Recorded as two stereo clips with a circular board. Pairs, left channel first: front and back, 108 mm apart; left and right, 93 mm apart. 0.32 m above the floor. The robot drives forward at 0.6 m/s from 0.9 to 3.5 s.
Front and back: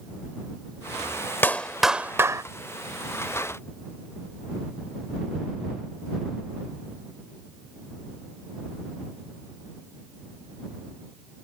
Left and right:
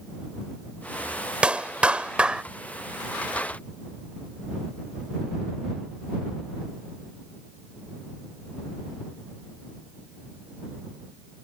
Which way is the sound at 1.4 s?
30° right.